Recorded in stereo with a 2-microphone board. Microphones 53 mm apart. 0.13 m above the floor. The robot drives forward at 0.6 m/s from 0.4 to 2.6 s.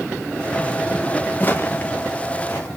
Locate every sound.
1.4 s footsteps: 30° left (ahead or behind), 0.8 m